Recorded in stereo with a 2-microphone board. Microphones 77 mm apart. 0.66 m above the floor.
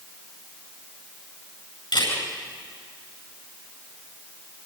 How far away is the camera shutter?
About 9.5 m.